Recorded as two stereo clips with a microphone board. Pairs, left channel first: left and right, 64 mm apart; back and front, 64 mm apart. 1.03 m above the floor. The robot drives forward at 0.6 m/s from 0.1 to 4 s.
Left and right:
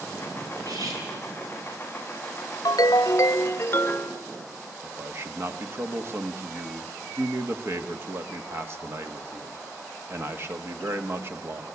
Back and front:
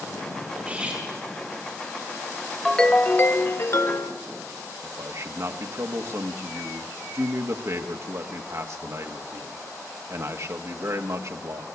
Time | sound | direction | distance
0.6 | cutlery clinking | 70° right | 6 m
2.6 | a ringtone | 95° left | 0.5 m
4.8 | a man speaking | 40° right | 1.4 m